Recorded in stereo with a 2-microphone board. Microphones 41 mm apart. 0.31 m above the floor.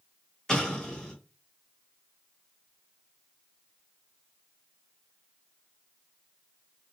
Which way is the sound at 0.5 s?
15° left (ahead or behind).